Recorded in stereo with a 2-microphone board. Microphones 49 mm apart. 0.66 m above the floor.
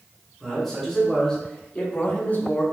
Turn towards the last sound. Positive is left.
turn(degrees=40)  # may be behind; listen again after turning